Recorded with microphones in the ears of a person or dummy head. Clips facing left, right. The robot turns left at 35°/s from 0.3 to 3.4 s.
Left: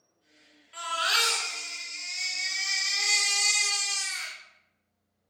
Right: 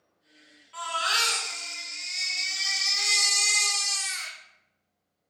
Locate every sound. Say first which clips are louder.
0.7 s a baby crying: right 1 dB; 5° left, 2 m; by 4.4 s 90° right, 2 m